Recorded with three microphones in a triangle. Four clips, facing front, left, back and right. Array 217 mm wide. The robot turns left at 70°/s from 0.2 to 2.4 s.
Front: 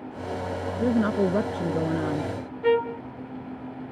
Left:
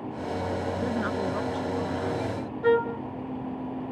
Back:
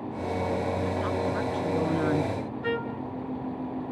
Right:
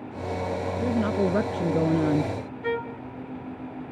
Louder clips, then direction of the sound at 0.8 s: Right 7 dB, front 5 dB; 5° right.